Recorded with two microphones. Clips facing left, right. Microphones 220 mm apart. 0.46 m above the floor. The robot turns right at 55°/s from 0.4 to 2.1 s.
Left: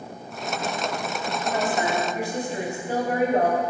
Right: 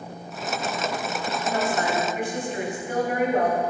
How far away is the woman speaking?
About 1.9 m.